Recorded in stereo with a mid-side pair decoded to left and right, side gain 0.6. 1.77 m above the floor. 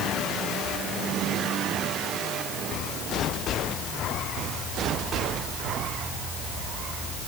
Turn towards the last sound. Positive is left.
No sound to turn to.